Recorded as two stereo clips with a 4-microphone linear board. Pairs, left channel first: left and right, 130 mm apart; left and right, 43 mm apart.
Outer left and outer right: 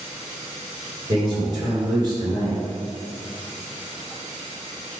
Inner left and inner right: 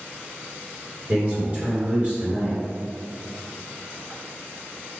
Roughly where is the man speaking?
Right.